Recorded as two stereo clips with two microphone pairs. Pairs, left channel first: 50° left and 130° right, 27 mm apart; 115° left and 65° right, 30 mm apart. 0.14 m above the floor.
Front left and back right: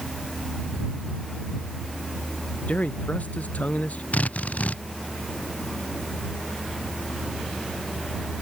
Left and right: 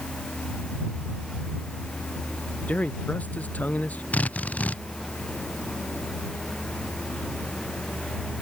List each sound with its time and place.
2.7 s a man speaking: 80° left
4.1 s a drill: 75° left